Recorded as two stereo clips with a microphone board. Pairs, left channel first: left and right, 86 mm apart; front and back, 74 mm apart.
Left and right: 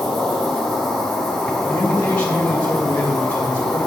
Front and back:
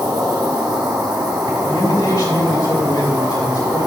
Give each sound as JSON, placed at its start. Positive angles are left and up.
{"t": 0.0, "sound": "an insect", "azimuth_deg": 175, "distance_m": 3.5}
{"t": 1.7, "sound": "a man speaking", "azimuth_deg": 20, "distance_m": 2.5}